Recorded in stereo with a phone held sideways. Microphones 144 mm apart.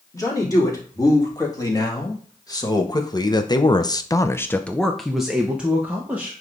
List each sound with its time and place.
0.1 s a man speaking: 25° left (ahead or behind), 3 m; by 6.4 s 10° right (ahead or behind), 1.6 m